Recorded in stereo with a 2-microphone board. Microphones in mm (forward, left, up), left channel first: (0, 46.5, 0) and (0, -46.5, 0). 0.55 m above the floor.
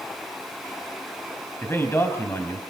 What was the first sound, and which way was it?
A man speaking, 25° left (ahead or behind).